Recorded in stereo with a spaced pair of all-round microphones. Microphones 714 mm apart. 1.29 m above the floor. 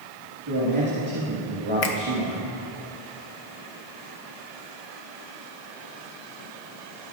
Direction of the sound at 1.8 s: 75° left (ahead or behind).